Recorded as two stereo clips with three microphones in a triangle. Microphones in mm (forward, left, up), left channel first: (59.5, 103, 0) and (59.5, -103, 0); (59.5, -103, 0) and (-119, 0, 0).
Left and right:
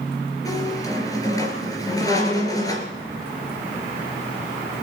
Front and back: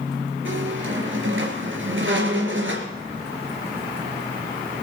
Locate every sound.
0.5 s a squeak: 165° left, 3 m